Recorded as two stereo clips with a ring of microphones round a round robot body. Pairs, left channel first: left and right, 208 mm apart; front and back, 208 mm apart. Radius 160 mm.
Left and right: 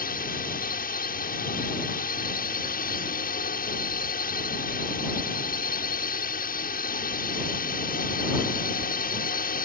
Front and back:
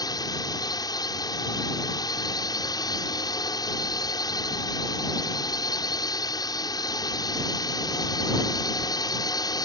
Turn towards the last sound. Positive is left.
turn(degrees=65)